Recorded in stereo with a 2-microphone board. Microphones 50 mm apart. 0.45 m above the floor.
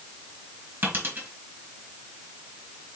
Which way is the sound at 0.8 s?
45° right (ahead or behind).